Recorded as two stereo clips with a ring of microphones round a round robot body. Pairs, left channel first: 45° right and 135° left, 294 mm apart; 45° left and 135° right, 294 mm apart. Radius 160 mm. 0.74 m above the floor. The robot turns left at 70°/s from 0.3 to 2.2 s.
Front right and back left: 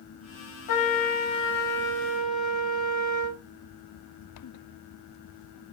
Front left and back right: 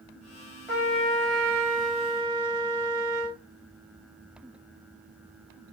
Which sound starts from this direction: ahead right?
A trumpet, at 0.7 s.